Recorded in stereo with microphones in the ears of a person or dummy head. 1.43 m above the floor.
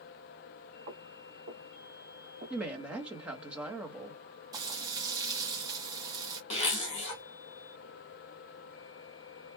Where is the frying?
20° right (ahead or behind), 1.1 m.